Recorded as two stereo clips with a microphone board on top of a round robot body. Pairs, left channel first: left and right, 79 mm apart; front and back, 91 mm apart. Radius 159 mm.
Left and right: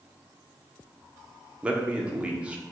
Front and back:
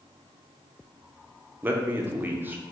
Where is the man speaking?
145° right, 0.7 m.